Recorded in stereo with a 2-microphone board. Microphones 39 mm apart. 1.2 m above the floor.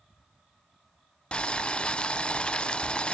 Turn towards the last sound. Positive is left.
turn(degrees=30)  # may be behind; listen again after turning